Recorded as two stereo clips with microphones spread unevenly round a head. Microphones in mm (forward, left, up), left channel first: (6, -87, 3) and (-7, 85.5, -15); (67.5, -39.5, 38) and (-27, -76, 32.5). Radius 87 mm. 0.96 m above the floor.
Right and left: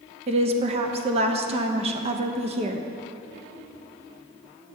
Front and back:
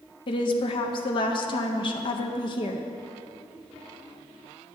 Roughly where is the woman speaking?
Ahead left.